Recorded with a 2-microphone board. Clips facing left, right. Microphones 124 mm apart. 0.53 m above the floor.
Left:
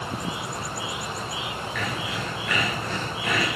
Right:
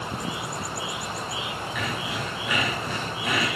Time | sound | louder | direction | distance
1.8 | sawing | even | 10° right (ahead or behind) | 5 m